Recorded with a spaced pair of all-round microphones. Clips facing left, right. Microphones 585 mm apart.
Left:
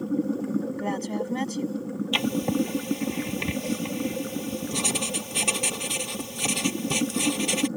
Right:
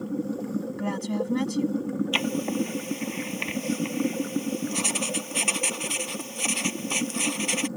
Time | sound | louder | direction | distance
0.8 | a woman speaking | even | 35° right (ahead or behind) | ?
2.1 | writing | left 2 dB | 65° left (ahead or behind) | ?